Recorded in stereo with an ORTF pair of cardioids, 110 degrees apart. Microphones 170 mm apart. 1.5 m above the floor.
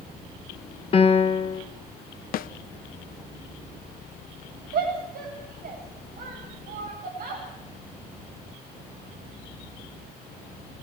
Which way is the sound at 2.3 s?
60° left.